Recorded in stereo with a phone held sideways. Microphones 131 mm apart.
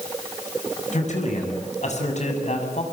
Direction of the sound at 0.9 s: 65° left (ahead or behind).